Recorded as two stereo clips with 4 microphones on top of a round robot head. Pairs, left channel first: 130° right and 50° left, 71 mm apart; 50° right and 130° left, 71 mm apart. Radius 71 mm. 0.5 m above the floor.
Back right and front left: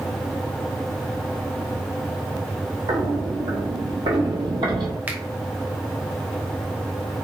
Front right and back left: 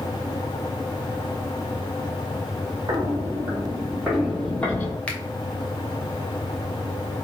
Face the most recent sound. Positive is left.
turn(degrees=5)